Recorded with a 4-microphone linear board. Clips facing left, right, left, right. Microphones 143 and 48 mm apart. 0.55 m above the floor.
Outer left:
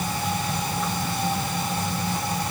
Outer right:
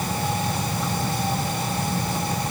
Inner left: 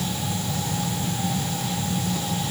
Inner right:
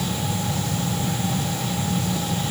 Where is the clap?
No clap in this recording.